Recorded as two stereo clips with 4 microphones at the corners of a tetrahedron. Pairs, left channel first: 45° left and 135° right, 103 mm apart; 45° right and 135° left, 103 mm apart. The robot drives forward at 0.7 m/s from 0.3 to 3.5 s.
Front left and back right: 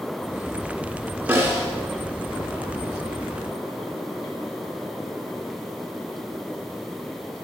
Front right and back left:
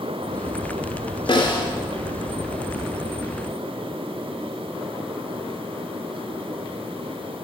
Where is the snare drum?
75° right, 3 m; by 1.7 s 80° right, 3 m.